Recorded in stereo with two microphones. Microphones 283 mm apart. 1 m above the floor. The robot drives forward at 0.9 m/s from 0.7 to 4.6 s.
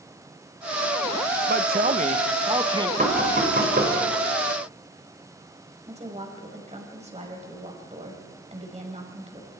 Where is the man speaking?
35° right (ahead or behind), 0.8 m; by 2.9 s 15° right (ahead or behind), 1.7 m.